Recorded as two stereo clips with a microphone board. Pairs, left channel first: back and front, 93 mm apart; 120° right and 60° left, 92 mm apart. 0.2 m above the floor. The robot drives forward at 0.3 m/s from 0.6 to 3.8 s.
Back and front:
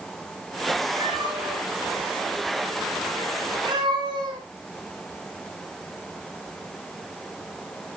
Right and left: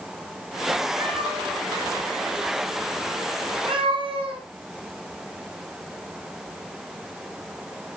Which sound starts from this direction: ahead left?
A cat meowing, at 1.0 s.